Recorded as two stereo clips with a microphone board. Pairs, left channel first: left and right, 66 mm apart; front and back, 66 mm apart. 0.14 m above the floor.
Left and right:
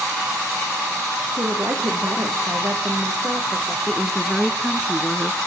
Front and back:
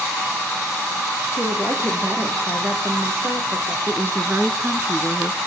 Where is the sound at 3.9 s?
175° right, 1.2 m.